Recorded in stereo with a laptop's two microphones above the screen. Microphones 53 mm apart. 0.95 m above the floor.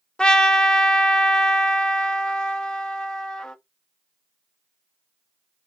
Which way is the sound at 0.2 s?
15° left (ahead or behind).